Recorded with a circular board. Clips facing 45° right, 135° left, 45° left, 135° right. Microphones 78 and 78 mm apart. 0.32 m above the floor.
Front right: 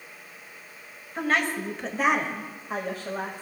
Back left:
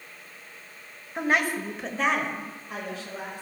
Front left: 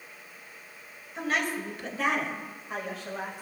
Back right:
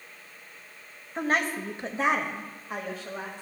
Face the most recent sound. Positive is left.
turn(degrees=-35)